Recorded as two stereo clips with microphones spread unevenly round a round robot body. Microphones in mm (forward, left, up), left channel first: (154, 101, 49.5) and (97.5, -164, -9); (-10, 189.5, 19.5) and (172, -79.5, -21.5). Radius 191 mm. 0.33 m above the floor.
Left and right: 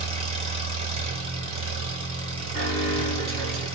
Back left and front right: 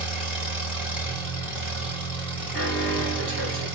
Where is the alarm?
115° right, 2.5 m.